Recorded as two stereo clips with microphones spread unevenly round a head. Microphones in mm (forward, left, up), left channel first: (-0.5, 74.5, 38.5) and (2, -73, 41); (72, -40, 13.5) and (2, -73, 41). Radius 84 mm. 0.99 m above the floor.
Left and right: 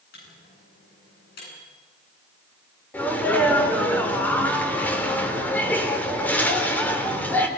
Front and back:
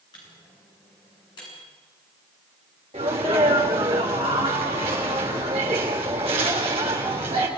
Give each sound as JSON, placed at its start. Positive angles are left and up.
{"t": 0.1, "sound": "a microwave", "azimuth_deg": 75, "distance_m": 10.0}
{"t": 2.9, "sound": "a sneeze", "azimuth_deg": 170, "distance_m": 3.5}